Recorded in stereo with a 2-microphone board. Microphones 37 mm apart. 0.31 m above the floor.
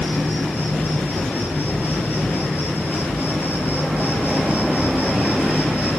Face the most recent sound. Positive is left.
turn(degrees=65)  # may be behind; listen again after turning